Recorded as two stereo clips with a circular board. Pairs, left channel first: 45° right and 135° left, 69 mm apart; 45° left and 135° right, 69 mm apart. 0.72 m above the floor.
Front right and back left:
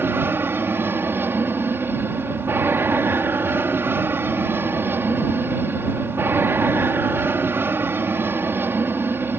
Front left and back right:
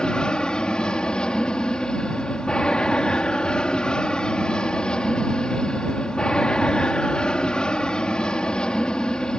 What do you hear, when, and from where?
0.0 s an aircraft: 115° left